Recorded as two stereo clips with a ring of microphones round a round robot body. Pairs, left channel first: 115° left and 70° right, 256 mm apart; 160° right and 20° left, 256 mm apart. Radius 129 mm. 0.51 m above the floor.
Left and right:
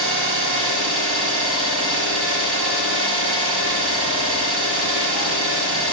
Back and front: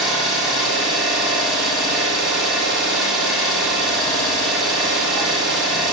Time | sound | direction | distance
0.0 | an engine running | 65° right | 0.7 m